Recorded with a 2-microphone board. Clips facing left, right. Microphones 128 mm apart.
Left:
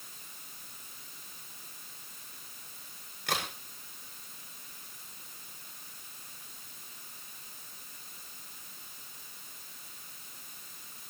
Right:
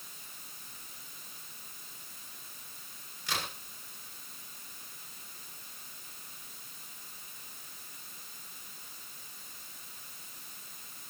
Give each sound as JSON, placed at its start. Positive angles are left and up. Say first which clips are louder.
{"t": 3.3, "sound": "a crack", "louder": "left 3 dB", "side_deg": 70, "distance_m": 7.0}